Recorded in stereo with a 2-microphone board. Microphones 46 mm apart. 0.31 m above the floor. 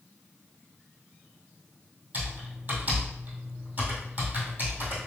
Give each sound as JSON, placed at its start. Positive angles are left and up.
{"t": 2.1, "sound": "typing on a keyboard", "side_deg": -40, "distance_m": 1.8}